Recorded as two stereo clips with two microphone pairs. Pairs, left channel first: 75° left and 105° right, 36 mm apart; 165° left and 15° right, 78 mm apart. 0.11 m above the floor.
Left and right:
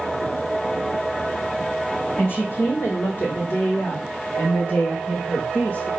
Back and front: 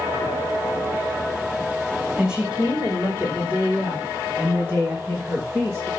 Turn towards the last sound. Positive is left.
turn(degrees=35)